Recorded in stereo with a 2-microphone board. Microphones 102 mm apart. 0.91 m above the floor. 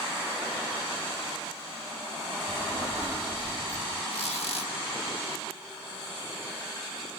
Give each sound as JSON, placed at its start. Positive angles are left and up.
{"t": 2.5, "sound": "a child speaking", "side_deg": -65, "distance_m": 2.5}
{"t": 4.1, "sound": "a squeak", "side_deg": 80, "distance_m": 1.4}